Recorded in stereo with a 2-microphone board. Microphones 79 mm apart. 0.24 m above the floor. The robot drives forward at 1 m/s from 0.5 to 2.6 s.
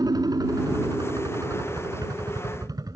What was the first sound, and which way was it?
A helicopter, 50° right (ahead or behind).